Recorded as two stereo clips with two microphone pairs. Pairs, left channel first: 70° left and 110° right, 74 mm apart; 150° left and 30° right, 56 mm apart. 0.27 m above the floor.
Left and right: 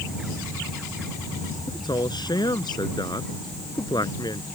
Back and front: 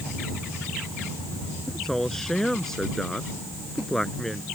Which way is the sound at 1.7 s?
65° left.